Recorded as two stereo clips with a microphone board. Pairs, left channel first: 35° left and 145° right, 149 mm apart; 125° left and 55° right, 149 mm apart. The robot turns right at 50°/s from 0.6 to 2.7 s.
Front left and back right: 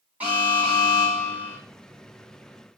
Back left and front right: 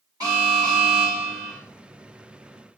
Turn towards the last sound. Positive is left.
turn(degrees=30)